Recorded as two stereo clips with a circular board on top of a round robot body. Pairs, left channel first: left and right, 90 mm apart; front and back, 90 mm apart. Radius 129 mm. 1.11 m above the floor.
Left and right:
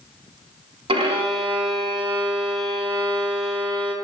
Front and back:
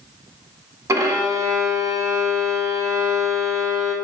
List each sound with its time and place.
0.9 s a violin: 120° right, 1.5 m